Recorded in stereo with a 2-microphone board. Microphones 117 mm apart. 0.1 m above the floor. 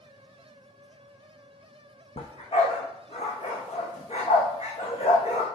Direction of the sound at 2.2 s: 60° left (ahead or behind).